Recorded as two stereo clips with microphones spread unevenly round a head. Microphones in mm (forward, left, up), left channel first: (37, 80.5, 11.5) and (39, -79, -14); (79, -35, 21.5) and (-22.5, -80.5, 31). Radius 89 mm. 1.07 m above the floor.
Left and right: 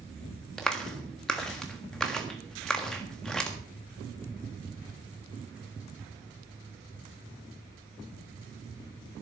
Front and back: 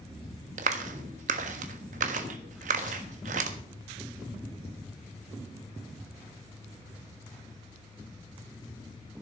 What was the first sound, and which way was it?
A clap, straight behind.